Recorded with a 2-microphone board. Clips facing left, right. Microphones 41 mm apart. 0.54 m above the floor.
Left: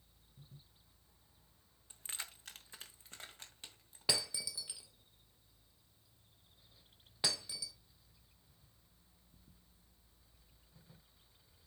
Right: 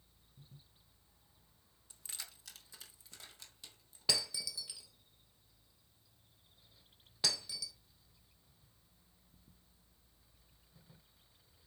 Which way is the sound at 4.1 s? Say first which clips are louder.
Right 1 dB; 20° left (ahead or behind).